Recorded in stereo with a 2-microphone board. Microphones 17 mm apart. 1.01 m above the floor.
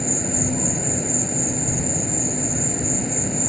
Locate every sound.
0.0 s an insect: 5° right (ahead or behind)